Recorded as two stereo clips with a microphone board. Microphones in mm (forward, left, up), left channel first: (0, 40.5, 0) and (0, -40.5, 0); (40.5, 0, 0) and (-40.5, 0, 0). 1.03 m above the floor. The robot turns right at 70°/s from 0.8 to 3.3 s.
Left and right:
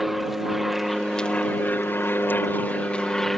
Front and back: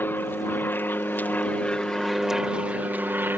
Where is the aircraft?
5° right; by 3.4 s 170° left.